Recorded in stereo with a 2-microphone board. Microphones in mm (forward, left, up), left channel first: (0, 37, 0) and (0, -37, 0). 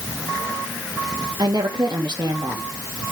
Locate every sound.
1.4 s a woman speaking: 75° right (ahead or behind), 3 m